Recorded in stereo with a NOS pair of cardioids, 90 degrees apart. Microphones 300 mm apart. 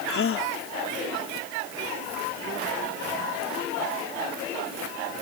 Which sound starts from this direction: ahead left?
A gasp, at 0.1 s.